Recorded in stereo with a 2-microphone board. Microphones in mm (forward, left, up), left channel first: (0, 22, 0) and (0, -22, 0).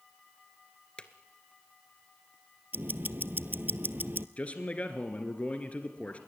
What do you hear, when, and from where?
1.0 s a drawer: 25° left (ahead or behind), 1.3 m
2.7 s ticking: 50° right (ahead or behind), 0.5 m
4.4 s a man speaking: 30° left (ahead or behind), 1.8 m